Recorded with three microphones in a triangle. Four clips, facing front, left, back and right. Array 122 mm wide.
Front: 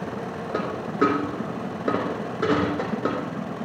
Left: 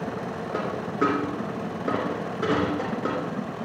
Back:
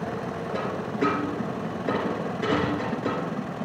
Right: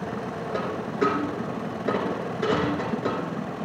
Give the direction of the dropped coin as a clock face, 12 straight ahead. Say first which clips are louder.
Even, front 4 dB; 11 o'clock.